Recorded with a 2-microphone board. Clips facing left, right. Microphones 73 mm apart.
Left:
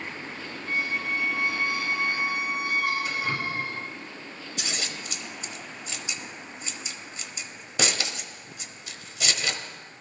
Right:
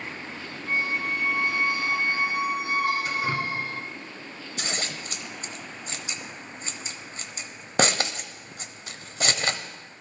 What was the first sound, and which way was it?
A squeak, 45° right (ahead or behind).